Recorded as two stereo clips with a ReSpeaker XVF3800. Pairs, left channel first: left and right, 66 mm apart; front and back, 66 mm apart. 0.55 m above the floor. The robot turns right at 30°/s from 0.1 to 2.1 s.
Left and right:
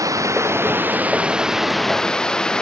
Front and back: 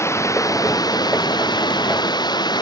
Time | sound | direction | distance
0.0 | running water | 50° right | ?